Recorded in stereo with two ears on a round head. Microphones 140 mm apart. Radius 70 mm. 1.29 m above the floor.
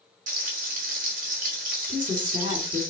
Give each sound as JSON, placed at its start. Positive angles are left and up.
{"t": 0.3, "sound": "frying", "side_deg": -55, "distance_m": 3.5}
{"t": 1.9, "sound": "a woman speaking", "side_deg": -30, "distance_m": 3.0}